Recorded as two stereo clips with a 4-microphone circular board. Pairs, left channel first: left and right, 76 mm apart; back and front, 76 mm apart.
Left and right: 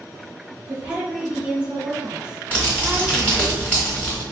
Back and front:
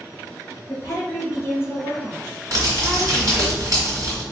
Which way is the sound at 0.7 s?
160° right.